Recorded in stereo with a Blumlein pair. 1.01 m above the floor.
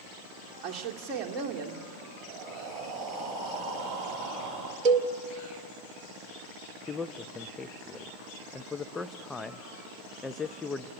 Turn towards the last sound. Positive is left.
turn(degrees=10)